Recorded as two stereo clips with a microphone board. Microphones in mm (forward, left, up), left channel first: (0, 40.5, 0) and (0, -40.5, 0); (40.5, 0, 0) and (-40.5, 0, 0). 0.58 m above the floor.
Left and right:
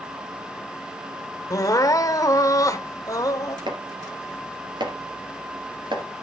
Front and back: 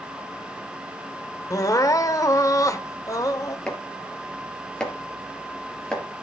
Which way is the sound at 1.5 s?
45° left.